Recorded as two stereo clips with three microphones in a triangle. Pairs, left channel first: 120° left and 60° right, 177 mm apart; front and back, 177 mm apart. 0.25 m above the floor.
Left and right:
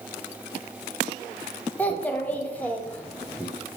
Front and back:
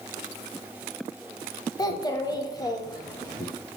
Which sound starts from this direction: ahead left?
A child speaking, at 1.8 s.